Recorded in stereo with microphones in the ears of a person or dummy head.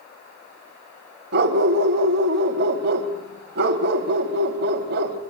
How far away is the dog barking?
About 2 m.